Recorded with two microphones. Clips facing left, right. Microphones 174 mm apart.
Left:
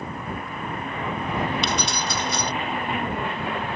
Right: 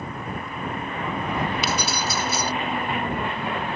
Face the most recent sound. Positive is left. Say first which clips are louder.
# even
turn(degrees=-5)  # may be behind; listen again after turning